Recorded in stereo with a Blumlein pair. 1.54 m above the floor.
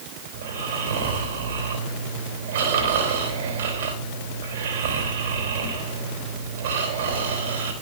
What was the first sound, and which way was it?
Snoring, 55° right.